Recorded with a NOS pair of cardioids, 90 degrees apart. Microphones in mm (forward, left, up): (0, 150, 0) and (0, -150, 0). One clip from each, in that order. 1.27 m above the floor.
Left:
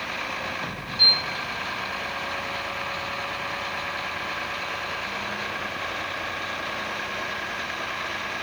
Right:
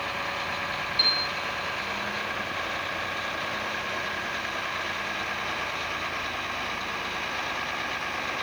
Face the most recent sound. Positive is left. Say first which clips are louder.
# left 6 dB
turn(degrees=-25)